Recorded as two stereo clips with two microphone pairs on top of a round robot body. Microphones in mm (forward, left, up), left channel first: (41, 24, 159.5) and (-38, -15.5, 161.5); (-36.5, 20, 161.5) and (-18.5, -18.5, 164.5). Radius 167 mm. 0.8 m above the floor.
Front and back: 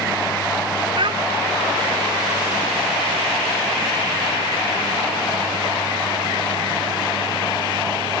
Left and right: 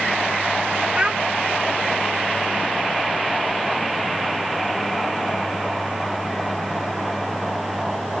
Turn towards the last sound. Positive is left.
turn(degrees=-135)